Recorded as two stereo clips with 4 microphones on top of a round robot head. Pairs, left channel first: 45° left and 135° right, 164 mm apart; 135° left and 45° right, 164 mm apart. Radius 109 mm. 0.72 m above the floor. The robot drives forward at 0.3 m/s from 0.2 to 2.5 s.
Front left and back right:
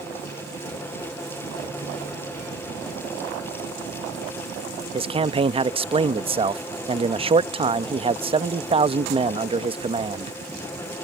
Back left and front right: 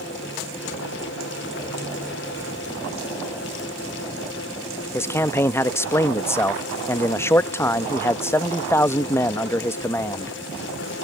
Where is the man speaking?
160° right.